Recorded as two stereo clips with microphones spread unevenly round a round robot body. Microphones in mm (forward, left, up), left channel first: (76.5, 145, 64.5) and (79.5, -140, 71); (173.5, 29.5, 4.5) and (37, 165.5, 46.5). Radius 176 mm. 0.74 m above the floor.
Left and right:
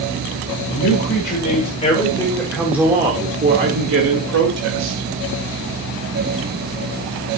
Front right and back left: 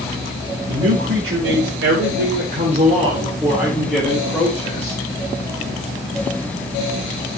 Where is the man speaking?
130° left, 2.5 m; by 5.1 s 100° right, 2.5 m.